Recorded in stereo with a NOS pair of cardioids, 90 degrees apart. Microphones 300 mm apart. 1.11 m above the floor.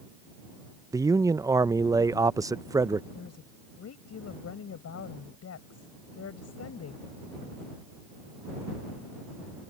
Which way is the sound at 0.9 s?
10° right.